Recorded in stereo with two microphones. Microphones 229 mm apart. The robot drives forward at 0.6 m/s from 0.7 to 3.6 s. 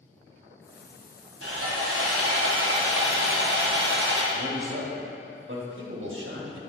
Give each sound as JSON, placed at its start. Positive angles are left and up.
{"t": 1.4, "sound": "sawing", "side_deg": -80, "distance_m": 1.9}
{"t": 4.3, "sound": "a man speaking", "side_deg": -65, "distance_m": 1.5}